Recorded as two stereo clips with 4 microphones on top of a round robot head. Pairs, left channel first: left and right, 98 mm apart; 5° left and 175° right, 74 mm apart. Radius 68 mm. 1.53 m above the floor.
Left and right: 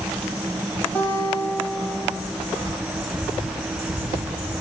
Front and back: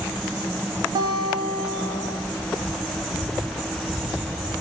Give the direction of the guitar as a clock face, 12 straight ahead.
6 o'clock.